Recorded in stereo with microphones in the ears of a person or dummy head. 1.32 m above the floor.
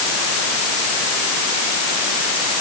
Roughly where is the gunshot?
I don't hear a gunshot.